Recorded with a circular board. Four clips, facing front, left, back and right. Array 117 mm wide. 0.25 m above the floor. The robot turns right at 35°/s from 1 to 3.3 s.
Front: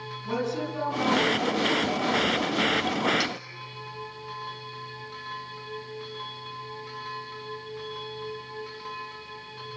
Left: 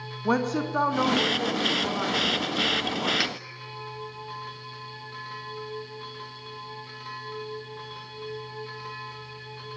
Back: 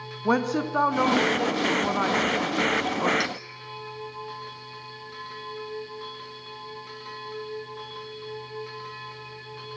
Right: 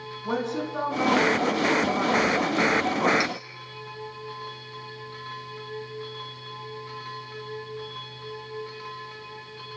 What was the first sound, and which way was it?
A woman speaking, 155° left.